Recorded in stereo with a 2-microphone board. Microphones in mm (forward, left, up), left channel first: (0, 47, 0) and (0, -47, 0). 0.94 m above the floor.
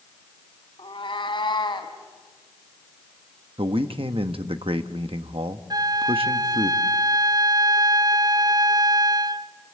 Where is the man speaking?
70° right (ahead or behind), 1.1 m.